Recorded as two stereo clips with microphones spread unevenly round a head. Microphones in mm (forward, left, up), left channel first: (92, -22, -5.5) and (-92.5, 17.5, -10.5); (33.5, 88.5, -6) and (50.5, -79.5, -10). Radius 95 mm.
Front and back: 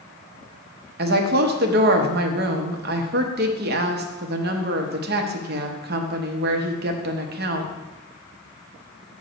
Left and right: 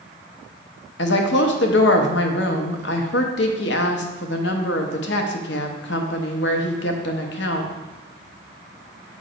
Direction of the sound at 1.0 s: 130° left.